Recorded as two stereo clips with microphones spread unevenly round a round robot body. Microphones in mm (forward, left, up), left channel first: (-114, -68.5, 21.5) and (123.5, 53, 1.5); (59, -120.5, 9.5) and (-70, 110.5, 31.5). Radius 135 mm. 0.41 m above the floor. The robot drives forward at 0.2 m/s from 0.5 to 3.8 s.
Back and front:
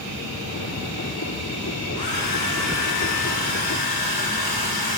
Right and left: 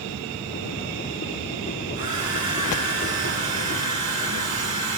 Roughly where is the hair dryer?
Behind.